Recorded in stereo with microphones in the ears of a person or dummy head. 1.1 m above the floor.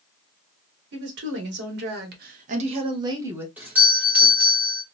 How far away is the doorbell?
About 0.8 m.